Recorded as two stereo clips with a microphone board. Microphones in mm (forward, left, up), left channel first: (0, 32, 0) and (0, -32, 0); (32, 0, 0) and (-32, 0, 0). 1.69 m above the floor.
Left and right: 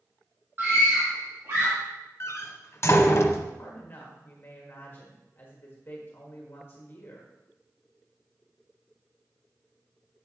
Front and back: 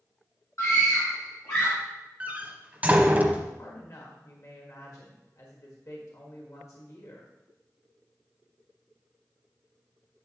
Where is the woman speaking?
35° left, 1.5 m.